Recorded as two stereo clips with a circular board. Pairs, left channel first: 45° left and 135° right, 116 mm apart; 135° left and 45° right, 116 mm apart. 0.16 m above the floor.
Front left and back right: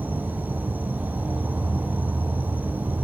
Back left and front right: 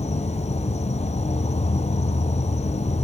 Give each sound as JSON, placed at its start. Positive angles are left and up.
{"t": 0.0, "sound": "an insect", "azimuth_deg": 150, "distance_m": 0.9}